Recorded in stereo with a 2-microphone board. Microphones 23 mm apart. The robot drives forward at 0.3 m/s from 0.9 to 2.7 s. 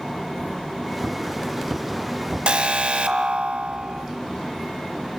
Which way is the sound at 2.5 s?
55° right (ahead or behind).